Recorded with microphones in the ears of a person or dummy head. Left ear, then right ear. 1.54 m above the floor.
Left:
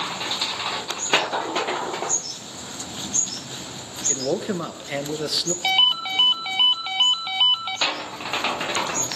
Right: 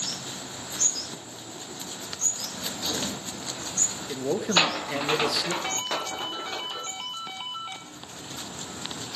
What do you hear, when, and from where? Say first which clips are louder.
4.1 s a man speaking: left 1 dB; 20° left (ahead or behind), 1.1 m
5.6 s a ringtone: left 11 dB; 50° left (ahead or behind), 0.8 m